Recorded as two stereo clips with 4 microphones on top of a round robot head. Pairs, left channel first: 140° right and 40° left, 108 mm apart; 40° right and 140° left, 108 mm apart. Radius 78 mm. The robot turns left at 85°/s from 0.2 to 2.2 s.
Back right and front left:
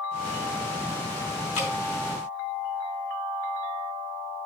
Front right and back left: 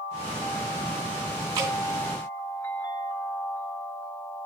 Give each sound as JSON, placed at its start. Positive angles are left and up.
{"t": 1.6, "sound": "dripping", "azimuth_deg": -155, "distance_m": 3.0}